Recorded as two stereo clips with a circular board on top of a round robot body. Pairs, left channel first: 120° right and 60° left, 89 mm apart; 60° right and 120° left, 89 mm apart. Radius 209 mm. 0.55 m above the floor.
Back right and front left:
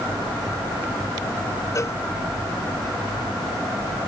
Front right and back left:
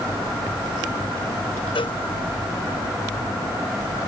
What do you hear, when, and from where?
1.8 s a cowbell: 65° right